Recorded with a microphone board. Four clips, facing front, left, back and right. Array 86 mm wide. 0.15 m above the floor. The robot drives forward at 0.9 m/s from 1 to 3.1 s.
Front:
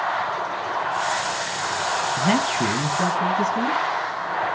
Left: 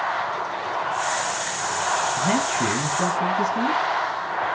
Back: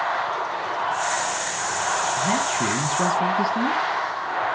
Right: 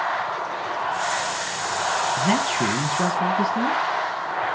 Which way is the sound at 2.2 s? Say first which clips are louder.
Even, front 2 dB; 25° right.